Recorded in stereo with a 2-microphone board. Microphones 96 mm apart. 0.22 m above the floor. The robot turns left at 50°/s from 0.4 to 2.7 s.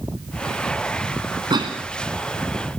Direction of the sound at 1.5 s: 50° right (ahead or behind).